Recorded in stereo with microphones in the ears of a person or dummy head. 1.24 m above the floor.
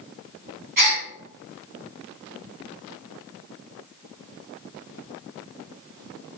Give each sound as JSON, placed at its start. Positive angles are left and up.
{"t": 0.8, "sound": "a gasp", "side_deg": -50, "distance_m": 3.5}